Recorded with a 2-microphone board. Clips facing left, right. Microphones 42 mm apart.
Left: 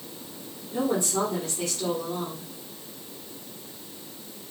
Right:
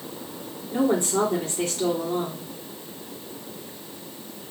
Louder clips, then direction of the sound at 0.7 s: Right 4 dB; 45° right (ahead or behind).